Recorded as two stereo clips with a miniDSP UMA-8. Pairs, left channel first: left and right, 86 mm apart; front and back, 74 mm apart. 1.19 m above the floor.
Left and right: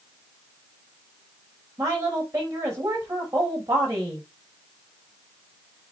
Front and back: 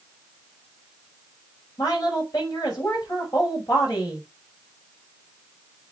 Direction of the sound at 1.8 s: 40° right.